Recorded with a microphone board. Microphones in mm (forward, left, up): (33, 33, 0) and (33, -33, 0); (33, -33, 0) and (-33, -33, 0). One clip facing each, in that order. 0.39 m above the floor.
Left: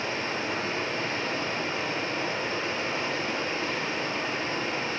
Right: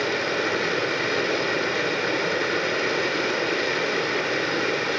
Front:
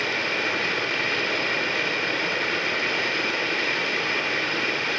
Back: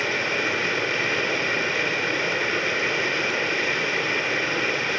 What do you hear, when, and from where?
0.0 s running water: 90° right, 3.5 m